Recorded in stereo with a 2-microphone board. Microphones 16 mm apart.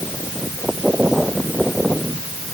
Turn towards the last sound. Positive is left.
No sound to turn to.